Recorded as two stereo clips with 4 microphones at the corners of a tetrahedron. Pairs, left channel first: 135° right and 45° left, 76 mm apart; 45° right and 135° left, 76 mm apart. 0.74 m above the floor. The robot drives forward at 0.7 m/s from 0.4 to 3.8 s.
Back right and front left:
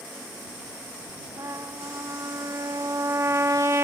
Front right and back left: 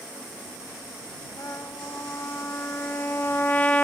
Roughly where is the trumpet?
Ahead.